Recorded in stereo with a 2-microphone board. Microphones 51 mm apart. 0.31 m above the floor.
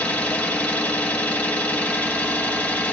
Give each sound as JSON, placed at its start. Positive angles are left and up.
{"t": 0.0, "sound": "an engine running", "side_deg": 30, "distance_m": 1.1}